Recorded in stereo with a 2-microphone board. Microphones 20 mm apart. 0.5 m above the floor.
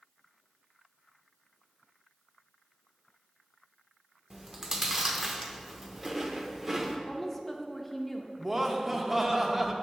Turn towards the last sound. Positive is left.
turn(degrees=-20)  # may be behind; listen again after turning